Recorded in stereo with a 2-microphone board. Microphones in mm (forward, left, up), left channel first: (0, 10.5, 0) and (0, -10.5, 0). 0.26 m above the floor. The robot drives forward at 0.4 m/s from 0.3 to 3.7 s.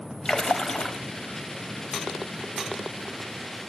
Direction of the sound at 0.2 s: 35° left (ahead or behind).